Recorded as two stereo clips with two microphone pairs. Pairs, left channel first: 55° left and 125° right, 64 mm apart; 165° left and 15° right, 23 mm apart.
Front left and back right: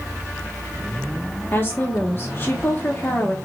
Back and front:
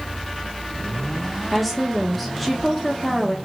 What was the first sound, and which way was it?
A woman speaking, 80° left.